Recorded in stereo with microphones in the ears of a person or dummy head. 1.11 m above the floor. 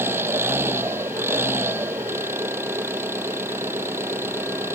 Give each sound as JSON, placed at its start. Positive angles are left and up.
{"t": 0.0, "sound": "an engine running", "side_deg": -10}